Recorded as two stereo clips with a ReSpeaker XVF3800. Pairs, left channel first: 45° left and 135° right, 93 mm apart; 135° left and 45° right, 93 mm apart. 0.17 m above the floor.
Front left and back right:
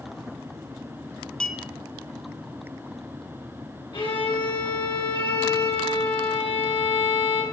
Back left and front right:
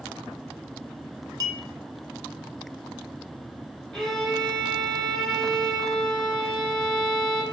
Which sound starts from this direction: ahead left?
A violin, at 3.9 s.